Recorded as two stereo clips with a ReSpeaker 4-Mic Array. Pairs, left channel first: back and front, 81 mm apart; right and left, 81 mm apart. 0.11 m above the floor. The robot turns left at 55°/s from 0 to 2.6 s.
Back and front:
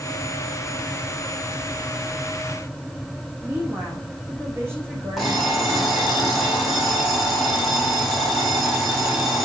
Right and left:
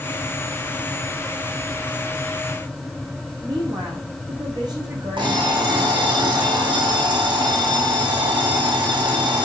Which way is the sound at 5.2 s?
90° left.